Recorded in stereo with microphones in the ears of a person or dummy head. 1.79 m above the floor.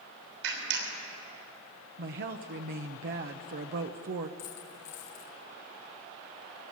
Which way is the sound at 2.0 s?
45° right (ahead or behind).